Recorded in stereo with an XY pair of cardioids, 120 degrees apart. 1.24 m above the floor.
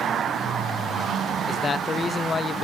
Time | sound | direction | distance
1.5 | a man speaking | 30° left | 0.8 m